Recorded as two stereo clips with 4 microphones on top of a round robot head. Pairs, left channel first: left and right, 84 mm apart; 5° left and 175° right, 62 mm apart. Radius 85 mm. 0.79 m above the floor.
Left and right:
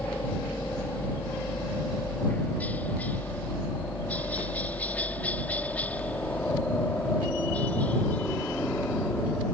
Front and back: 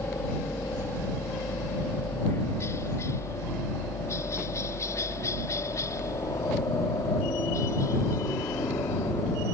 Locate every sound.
0.0 s a helicopter: 25° left; by 9.5 s 20° left